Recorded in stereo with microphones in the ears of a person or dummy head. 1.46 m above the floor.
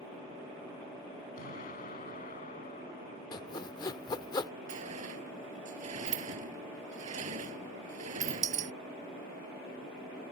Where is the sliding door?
40° right (ahead or behind).